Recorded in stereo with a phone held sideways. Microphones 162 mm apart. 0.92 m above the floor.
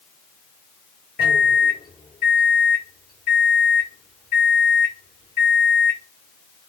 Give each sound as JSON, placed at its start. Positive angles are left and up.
{"t": 1.2, "sound": "a microwave", "side_deg": 80, "distance_m": 1.8}